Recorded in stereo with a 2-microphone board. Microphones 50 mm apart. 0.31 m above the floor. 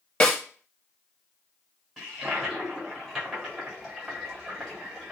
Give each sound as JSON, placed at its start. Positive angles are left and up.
{"t": 0.2, "sound": "a snare drum", "side_deg": 25, "distance_m": 0.8}
{"t": 2.0, "sound": "a toilet flushing", "side_deg": -5, "distance_m": 1.7}